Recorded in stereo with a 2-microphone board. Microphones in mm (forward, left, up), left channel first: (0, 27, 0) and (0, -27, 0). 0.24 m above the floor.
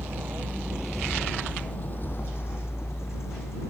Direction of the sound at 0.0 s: 50° right (ahead or behind).